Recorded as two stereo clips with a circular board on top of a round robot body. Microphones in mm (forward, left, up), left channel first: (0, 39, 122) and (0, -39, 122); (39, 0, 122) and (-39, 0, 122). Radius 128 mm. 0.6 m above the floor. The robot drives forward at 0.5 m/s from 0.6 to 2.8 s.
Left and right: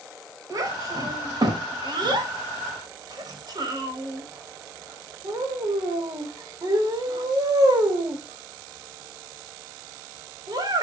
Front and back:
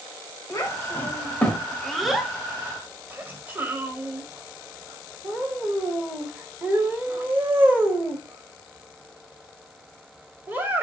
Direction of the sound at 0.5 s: 50° right.